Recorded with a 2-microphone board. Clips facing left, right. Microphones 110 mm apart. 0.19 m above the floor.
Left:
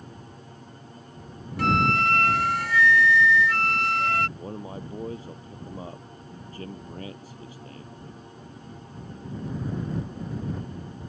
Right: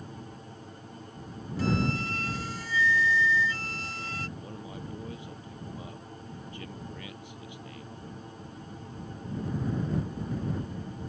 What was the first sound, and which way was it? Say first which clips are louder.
A flute: left 6 dB; 70° left (ahead or behind).